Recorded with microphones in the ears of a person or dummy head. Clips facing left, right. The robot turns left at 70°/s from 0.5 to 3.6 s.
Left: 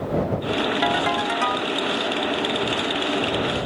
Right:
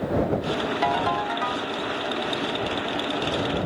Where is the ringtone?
170° left; by 1.7 s 110° left.